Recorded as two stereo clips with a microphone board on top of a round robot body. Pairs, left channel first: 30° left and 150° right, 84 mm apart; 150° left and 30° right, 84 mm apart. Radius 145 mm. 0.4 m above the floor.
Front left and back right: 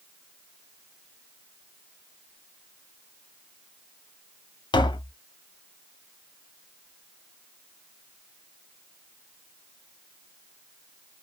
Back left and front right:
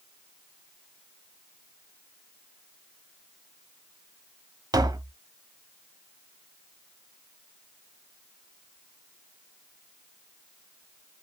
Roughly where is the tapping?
Ahead.